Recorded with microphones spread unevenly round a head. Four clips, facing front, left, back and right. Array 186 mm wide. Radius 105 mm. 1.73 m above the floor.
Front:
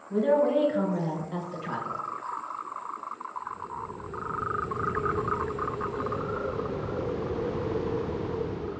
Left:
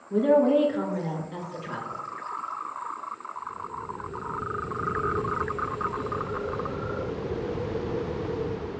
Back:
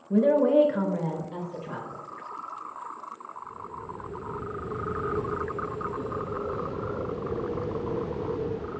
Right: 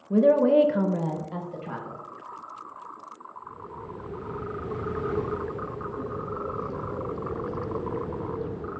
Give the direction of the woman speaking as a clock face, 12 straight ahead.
4 o'clock.